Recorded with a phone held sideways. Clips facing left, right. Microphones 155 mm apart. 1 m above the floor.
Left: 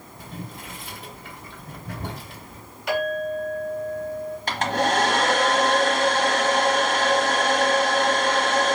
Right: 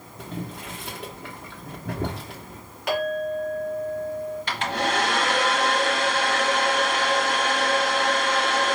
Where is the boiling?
70° right (ahead or behind), 1.0 m.